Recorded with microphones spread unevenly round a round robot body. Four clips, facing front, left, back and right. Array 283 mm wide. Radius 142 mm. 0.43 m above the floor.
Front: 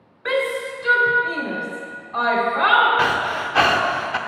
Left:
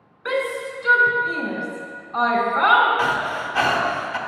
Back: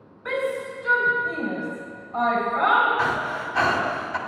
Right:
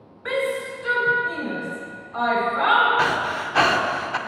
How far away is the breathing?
About 0.8 m.